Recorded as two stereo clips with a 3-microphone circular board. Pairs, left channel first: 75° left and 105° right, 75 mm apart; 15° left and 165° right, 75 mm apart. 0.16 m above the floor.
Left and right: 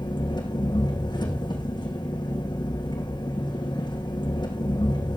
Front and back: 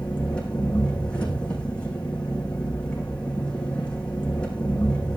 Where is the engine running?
90° left, 6 m.